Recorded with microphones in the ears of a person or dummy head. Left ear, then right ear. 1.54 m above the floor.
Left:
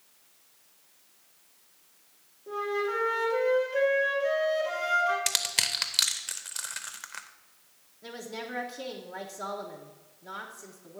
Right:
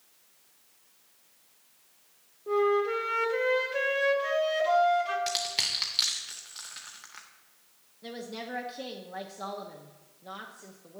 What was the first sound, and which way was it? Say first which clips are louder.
A flute: right 5 dB; 30° right (ahead or behind).